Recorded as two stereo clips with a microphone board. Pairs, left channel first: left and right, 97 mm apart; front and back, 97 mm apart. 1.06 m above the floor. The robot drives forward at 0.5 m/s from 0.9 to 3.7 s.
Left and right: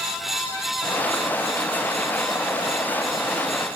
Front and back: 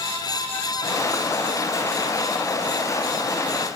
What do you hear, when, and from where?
Only background noise.